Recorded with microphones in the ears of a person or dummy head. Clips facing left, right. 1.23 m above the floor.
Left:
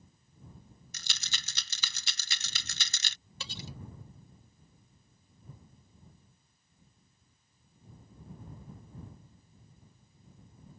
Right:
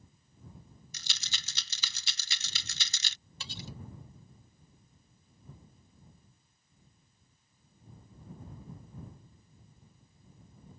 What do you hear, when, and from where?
0.9 s a rattle: 50° left (ahead or behind)
3.4 s cutlery clinking: 70° left (ahead or behind)